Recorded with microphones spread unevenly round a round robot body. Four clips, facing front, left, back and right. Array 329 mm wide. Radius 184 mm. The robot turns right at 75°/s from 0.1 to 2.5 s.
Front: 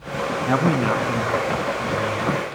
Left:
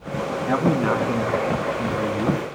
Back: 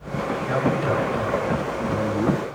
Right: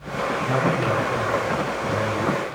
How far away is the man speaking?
About 5.5 m.